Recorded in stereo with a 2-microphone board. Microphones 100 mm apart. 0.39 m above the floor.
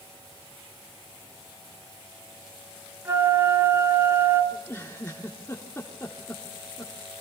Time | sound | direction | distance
3.0 | a flute | 20° right (ahead or behind) | 3 m
4.5 | a giggle | 25° left (ahead or behind) | 3.5 m